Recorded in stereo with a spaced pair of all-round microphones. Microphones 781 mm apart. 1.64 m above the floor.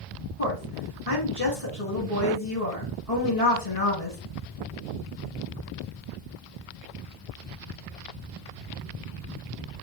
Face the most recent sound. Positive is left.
turn(degrees=50)  # may be behind; listen again after turning